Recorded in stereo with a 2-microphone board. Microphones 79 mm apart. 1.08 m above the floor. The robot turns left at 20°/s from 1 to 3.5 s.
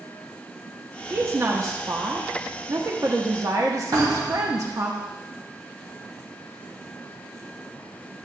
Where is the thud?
50° right (ahead or behind), 3 m.